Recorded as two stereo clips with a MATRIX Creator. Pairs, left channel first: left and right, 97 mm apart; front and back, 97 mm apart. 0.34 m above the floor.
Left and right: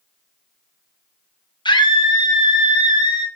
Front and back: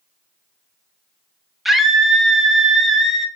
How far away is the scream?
About 2.0 m.